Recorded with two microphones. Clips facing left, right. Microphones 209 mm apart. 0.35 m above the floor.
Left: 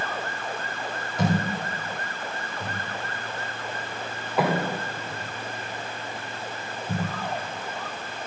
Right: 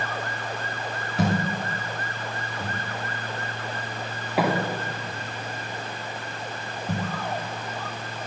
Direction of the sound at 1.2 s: 70° right (ahead or behind).